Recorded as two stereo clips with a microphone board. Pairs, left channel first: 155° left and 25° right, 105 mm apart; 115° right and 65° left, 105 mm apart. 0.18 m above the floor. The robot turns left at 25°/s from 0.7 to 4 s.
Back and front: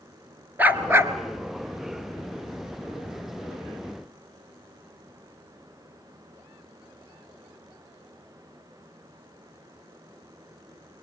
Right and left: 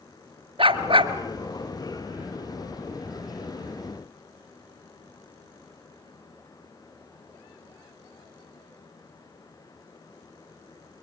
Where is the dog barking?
50° left, 1.2 m; by 1.1 s 40° left, 1.2 m.